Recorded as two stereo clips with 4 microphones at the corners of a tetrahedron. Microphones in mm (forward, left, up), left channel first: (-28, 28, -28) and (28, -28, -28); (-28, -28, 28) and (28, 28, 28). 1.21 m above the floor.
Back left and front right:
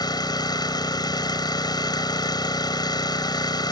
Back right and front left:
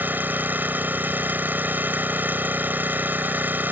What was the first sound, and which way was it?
An engine running, 110° left.